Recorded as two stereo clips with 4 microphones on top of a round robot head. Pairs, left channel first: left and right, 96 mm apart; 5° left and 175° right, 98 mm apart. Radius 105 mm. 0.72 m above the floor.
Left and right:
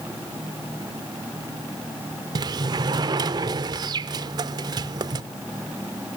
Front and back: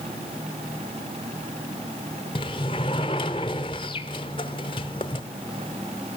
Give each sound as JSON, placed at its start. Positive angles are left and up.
{"t": 2.4, "sound": "a sliding door", "azimuth_deg": -45, "distance_m": 0.5}